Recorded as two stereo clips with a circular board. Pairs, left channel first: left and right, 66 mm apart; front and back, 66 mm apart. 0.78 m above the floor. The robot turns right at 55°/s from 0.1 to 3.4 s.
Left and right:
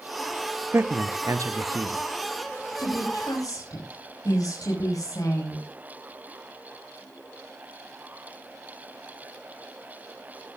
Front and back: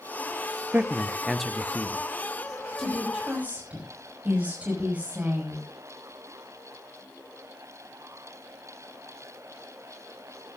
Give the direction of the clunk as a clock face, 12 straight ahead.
I don't hear a clunk.